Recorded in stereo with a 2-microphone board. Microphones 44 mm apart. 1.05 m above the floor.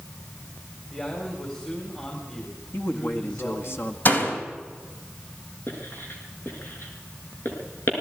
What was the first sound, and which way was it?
A man speaking, 30° left (ahead or behind).